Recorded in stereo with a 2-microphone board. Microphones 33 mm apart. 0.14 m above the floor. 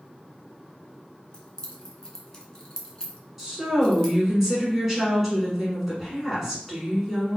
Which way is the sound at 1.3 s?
20° left (ahead or behind).